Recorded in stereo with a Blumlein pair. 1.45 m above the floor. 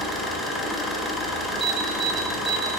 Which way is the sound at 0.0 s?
10° left.